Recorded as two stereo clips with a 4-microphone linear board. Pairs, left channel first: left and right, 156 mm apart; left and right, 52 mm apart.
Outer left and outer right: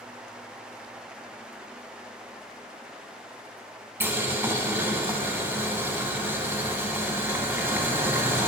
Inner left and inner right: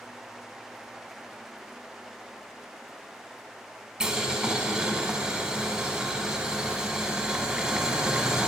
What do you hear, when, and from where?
4.0 s boiling: 15° right (ahead or behind), 0.8 m